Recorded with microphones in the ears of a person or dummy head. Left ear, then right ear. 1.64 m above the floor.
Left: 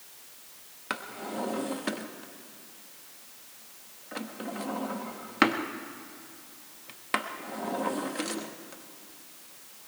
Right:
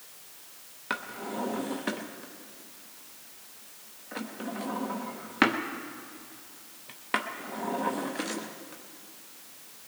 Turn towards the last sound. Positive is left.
turn(degrees=5)  # may be behind; listen again after turning